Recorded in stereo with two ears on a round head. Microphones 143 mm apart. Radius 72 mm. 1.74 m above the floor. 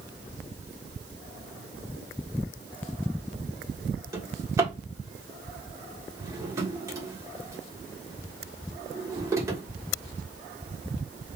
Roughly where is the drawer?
Centre.